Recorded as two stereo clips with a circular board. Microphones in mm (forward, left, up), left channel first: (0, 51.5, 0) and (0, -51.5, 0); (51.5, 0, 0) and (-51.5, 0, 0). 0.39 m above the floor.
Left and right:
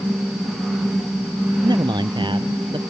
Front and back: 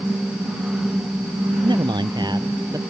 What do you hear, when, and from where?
1.6 s a man speaking: 135° right; by 2.8 s 125° right